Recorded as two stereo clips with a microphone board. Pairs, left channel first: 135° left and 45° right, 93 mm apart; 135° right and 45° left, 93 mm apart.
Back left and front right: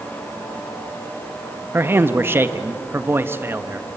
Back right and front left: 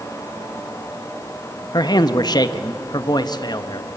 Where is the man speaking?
105° right, 0.9 m.